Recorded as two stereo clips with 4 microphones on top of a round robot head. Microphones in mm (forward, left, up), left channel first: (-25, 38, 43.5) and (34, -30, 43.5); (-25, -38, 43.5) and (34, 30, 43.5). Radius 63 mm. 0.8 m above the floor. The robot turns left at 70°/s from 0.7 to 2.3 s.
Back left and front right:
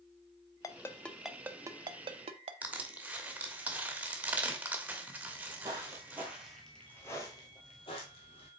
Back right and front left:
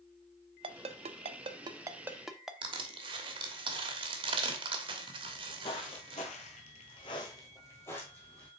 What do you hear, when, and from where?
0.6 s a ringtone: 75° left, 0.6 m; by 2.5 s 35° right, 0.6 m
2.6 s crushing: 25° left, 1.2 m
5.2 s footsteps: 95° right, 1.9 m; by 8.5 s 150° left, 2 m